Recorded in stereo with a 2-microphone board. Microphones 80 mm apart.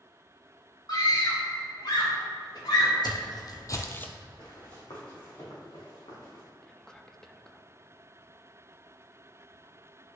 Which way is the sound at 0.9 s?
55° left (ahead or behind).